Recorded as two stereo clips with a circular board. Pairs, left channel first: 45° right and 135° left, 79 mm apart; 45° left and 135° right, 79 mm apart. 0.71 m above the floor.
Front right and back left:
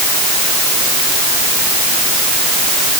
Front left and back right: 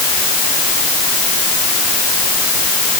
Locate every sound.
Only background noise.